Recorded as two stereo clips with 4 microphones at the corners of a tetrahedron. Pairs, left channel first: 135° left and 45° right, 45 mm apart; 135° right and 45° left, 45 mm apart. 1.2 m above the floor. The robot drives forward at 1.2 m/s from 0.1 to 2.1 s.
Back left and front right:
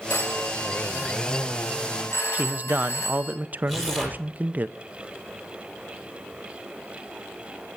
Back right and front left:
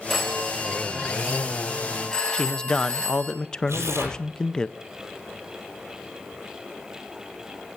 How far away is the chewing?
No chewing in this recording.